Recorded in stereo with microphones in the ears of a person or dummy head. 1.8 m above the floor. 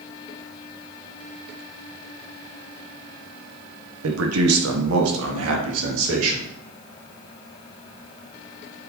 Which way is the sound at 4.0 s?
65° right (ahead or behind).